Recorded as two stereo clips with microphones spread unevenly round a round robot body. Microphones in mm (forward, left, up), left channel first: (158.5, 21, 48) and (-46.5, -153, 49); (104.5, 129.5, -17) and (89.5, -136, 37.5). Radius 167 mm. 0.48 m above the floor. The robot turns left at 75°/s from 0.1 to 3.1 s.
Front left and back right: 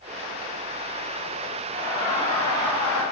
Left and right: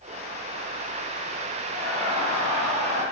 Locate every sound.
1.7 s laughter: 140° left, 2 m; by 3.0 s 35° left, 2 m